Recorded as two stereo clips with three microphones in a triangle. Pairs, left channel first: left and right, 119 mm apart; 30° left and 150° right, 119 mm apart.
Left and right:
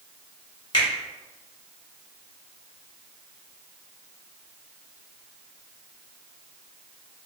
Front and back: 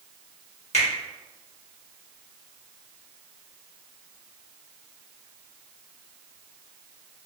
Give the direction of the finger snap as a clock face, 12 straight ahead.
11 o'clock.